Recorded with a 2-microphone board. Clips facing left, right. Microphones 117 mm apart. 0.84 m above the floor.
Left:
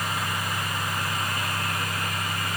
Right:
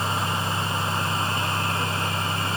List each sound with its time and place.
Only background noise.